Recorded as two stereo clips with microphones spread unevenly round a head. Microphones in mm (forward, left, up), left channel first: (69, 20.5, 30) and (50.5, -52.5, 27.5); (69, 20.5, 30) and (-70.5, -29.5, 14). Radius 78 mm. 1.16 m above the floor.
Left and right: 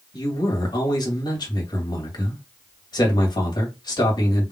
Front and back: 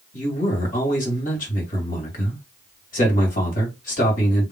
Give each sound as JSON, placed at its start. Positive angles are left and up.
{"t": 0.1, "sound": "a man speaking", "azimuth_deg": 55, "distance_m": 2.5}